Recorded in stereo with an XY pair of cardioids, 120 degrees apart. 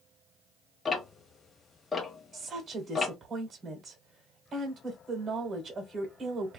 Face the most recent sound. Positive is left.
turn(degrees=-30)